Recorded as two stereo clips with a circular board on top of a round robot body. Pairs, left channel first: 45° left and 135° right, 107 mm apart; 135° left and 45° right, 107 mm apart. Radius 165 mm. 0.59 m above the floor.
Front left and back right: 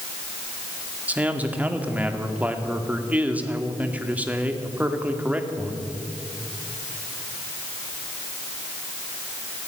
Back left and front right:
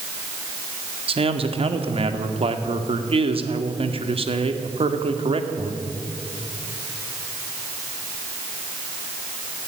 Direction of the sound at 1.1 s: 60° right.